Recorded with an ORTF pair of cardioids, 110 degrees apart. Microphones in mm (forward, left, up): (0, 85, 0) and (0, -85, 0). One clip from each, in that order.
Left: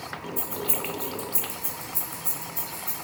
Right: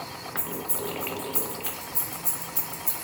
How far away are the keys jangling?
About 1.1 m.